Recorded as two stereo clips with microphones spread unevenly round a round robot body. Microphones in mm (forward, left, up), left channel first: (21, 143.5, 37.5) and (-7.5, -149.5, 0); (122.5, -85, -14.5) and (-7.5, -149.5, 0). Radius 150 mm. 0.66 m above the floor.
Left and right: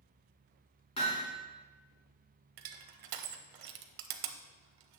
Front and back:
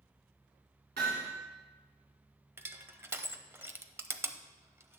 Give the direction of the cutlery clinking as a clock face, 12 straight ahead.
No cutlery clinking in this recording.